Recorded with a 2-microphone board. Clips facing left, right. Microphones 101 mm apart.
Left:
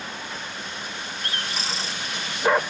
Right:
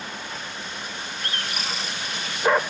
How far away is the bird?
About 2 m.